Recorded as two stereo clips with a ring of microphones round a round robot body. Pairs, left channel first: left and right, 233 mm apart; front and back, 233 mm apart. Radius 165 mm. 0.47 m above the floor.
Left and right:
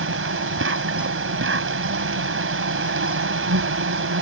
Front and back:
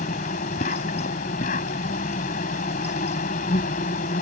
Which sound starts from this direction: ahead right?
An insect, at 0.0 s.